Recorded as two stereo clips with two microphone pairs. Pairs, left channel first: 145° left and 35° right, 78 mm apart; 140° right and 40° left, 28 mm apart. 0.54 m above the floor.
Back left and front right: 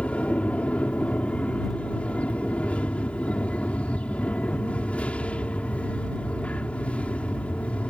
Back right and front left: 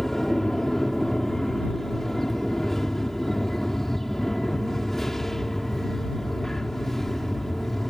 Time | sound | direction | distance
0.0 | an aircraft | 175° left | ?